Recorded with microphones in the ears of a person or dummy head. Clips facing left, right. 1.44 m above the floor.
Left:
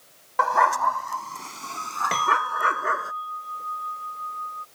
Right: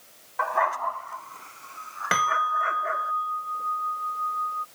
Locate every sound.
0.4 s a dog barking: 70° left (ahead or behind); by 3.1 s 65° left (ahead or behind)
2.1 s a bell: 10° right (ahead or behind)